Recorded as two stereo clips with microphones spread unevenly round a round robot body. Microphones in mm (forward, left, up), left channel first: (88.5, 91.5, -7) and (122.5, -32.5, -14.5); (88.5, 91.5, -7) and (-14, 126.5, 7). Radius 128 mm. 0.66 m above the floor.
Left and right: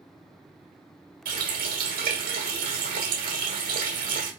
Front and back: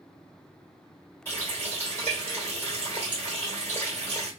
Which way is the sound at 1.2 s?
100° right.